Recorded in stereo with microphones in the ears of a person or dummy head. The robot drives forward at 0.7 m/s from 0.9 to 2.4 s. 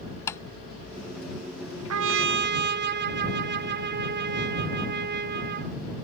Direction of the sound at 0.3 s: 10° left (ahead or behind).